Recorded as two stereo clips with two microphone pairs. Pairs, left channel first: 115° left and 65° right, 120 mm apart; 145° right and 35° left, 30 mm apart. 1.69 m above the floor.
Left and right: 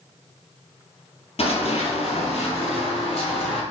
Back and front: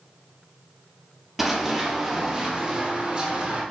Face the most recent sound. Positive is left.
turn(degrees=85)